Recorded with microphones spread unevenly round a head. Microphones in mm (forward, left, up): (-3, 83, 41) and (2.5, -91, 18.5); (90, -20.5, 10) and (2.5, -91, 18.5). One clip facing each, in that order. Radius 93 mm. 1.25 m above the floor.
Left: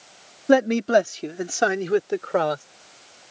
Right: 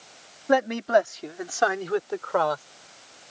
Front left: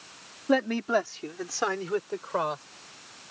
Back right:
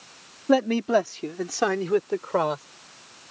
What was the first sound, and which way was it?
A man speaking, 150° left.